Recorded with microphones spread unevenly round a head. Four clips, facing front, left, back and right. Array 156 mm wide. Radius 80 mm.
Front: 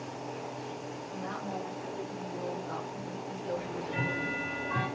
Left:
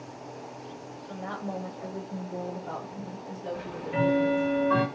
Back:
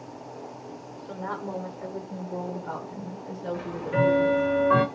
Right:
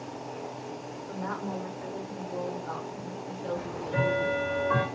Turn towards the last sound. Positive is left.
turn(degrees=-165)